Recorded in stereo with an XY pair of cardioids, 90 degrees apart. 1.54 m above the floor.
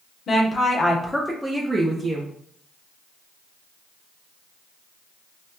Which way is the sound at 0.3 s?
55° left.